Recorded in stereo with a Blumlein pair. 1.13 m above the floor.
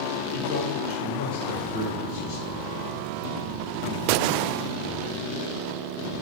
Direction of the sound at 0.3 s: 65° left.